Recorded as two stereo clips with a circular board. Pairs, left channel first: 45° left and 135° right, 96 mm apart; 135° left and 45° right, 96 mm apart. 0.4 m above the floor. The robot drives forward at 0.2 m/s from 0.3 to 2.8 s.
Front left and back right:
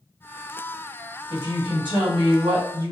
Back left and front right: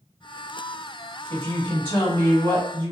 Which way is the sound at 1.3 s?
155° right.